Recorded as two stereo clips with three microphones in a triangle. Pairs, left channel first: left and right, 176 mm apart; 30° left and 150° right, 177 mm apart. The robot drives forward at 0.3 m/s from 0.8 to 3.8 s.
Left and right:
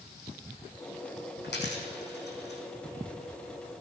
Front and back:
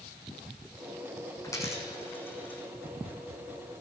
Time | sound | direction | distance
1.4 | a dropped coin | 100° left | 2 m